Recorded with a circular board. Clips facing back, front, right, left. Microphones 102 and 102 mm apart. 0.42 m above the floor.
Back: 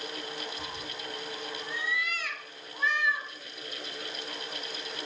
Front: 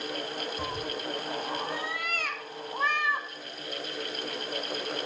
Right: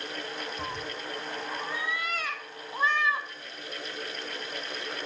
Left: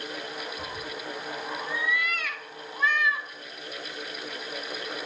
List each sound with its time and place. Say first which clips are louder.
0.6 s a cat meowing: front 6 dB, even; 35° right, 1.2 m